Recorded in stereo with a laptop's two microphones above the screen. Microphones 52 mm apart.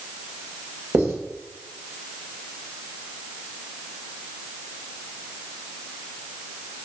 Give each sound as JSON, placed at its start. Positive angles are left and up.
{"t": 0.9, "sound": "writing", "side_deg": -55, "distance_m": 2.5}